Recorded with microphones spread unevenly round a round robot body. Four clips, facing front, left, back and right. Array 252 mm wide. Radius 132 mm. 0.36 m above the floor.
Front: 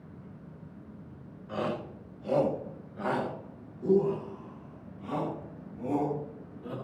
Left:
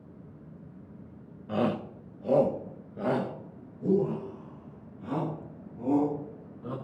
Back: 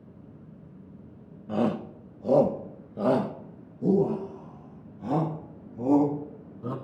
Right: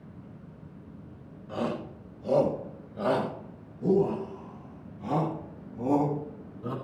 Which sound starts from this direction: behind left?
A shout, at 1.5 s.